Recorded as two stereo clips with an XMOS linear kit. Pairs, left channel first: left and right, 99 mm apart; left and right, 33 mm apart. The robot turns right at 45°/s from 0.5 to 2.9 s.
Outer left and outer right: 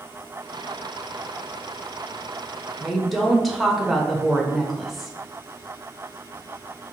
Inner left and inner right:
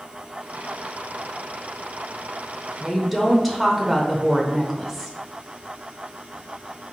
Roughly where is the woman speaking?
Centre.